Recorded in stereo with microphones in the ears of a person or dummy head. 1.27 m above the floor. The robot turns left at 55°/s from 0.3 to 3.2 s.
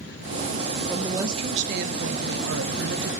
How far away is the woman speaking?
About 1.0 m.